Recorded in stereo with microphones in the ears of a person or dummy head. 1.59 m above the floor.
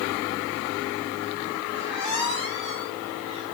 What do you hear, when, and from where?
1.7 s a squeak: 30° right (ahead or behind), 1.5 m